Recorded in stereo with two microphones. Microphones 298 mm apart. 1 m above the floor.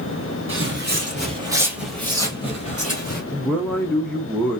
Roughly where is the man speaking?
Centre.